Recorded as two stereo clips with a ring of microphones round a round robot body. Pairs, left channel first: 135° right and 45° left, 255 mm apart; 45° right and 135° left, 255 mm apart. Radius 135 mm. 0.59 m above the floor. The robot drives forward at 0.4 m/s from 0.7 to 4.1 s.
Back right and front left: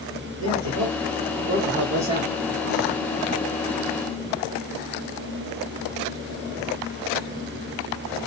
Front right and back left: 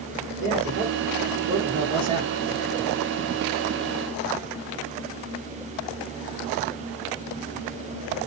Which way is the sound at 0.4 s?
80° left.